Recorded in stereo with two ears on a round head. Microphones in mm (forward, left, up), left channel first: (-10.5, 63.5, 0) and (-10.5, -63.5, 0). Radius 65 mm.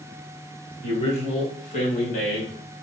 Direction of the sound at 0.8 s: 35° left (ahead or behind).